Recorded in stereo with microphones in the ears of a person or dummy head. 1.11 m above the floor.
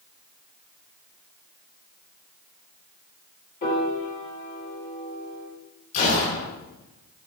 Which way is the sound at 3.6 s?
40° left (ahead or behind).